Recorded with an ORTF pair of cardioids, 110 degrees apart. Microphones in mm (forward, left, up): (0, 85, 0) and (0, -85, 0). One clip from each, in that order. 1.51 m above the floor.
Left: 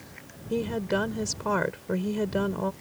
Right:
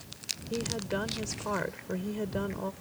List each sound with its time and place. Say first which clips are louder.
0.5 s a woman speaking: left 7 dB; 35° left